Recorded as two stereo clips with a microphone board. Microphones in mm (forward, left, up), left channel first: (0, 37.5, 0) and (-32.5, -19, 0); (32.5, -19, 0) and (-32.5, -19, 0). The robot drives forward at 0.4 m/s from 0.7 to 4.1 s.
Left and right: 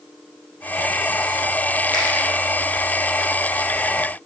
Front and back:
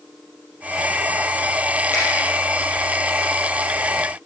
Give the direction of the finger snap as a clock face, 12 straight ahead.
2 o'clock.